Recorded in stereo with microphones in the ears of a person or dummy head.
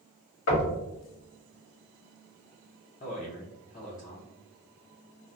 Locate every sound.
0.5 s knocking: 75° left (ahead or behind), 1.2 m
3.0 s a man speaking: 40° left (ahead or behind), 0.6 m